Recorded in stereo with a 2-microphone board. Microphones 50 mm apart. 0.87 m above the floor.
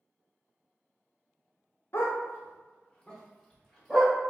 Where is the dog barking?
60° left (ahead or behind), 0.7 m; by 4.1 s 5° right (ahead or behind), 1.3 m.